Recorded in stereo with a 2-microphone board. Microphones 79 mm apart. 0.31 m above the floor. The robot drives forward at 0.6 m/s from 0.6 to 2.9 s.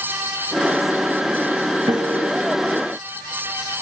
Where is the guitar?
80° right, 2 m; by 2.3 s 85° right, 2 m.